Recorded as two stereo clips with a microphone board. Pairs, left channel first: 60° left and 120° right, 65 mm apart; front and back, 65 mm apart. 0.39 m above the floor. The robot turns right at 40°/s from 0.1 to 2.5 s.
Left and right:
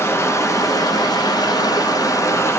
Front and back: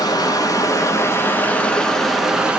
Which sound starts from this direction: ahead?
Running water, at 0.0 s.